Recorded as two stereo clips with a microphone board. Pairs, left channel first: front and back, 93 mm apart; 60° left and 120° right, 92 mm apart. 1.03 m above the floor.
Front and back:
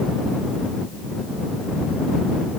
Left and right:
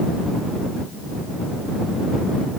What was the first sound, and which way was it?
Only background noise.